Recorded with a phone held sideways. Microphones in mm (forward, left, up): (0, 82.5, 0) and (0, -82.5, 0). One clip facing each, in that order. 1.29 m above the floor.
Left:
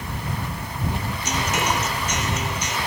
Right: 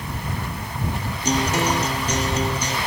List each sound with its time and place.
1.2 s a guitar: 35° right (ahead or behind)